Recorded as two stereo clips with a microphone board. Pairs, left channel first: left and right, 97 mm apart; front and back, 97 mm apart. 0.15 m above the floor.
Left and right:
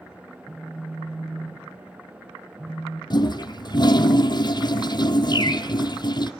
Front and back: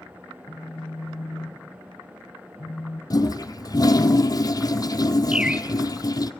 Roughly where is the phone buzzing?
Ahead right.